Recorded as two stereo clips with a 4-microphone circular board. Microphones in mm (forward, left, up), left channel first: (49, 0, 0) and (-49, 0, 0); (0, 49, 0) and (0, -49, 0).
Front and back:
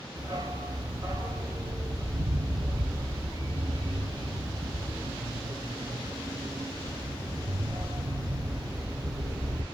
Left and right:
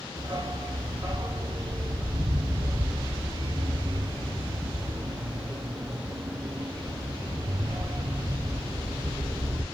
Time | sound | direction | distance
0.2 | a dog barking | 130° right | 1.0 m